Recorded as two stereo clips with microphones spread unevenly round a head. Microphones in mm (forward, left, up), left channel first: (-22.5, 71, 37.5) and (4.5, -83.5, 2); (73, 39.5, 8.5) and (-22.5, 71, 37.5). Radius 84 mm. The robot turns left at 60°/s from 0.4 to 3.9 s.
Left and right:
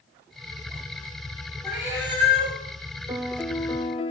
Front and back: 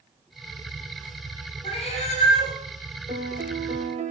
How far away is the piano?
About 1.4 m.